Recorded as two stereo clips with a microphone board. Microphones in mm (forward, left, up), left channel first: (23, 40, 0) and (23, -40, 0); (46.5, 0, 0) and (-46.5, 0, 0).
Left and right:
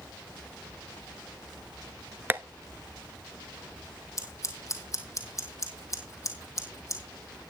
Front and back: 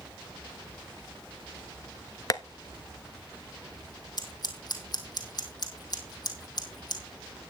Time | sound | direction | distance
2.3 | tapping | 30° right | 0.6 m
4.2 | scissors | 40° left | 2.0 m